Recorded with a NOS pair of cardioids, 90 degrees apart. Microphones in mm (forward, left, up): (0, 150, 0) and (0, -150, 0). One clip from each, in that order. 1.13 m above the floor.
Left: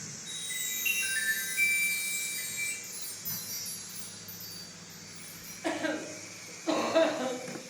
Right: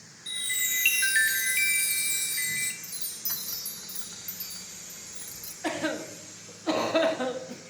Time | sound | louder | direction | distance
0.3 | a chime | right 8 dB | 70° right | 0.9 m
2.8 | a chime | right 4 dB | 70° right | 1.0 m
5.6 | a cough | right 2 dB | 25° right | 1.2 m